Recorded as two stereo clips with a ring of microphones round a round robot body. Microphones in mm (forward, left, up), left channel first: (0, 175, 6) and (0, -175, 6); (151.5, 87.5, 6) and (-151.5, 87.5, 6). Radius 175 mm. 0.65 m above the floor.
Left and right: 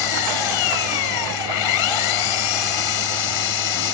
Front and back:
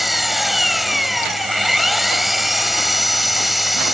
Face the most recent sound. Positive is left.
turn(degrees=90)